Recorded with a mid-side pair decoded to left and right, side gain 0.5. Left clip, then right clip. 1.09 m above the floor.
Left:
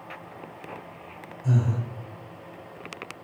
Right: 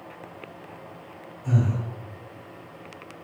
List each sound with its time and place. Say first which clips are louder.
1.4 s breathing: right 1 dB; 55° left, 1.7 m